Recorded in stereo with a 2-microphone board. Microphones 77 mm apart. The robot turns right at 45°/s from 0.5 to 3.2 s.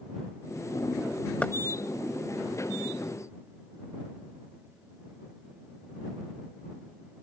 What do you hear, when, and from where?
1.4 s knocking: 20° left (ahead or behind); by 1.6 s 15° left (ahead or behind)